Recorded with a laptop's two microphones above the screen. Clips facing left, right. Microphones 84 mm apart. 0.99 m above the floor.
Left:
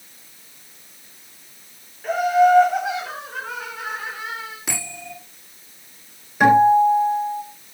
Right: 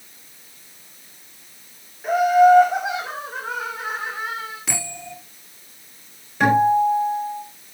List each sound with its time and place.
2.0 s laughter: 15° right (ahead or behind), 2.5 m; by 4.6 s 30° right (ahead or behind), 3.5 m
4.7 s a bell: 15° left (ahead or behind), 9 m
6.4 s a guitar: 10° left (ahead or behind), 5.5 m